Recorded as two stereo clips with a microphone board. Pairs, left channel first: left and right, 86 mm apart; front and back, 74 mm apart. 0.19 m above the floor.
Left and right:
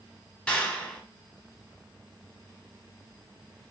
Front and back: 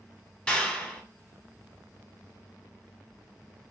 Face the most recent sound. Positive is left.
turn(degrees=45)